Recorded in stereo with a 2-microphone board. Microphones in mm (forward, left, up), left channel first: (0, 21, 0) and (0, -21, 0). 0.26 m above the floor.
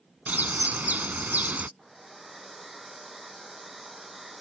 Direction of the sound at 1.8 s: 5° right (ahead or behind).